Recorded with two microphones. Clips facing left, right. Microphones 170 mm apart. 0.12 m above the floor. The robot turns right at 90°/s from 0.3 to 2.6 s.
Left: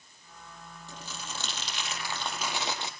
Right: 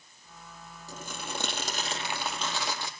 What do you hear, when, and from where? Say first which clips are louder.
0.9 s crumpling: right 5 dB; 130° right, 3.5 m; by 2.9 s 25° left, 3.5 m